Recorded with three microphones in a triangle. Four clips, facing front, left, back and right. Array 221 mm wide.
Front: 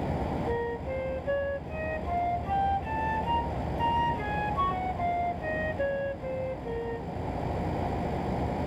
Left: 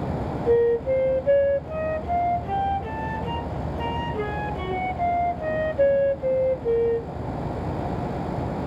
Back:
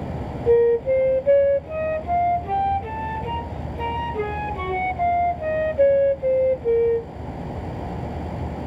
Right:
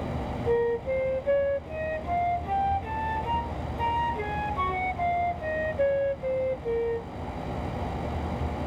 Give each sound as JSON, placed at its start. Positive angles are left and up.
{"t": 0.5, "sound": "a flute", "azimuth_deg": 155}